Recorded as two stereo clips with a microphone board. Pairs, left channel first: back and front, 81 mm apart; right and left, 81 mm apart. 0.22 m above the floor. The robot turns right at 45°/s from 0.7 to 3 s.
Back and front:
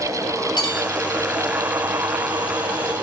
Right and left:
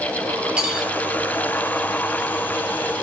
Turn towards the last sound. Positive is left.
turn(degrees=-90)